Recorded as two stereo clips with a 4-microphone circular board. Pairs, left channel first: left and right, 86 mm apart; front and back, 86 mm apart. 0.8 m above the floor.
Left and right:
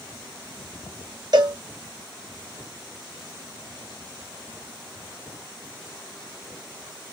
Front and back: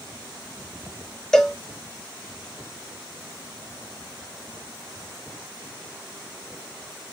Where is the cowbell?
85° right, 0.7 m.